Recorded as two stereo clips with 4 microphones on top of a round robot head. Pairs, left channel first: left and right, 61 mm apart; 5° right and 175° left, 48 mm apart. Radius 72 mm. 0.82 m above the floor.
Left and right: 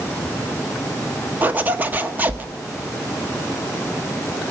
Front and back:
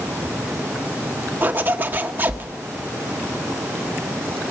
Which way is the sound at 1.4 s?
145° right.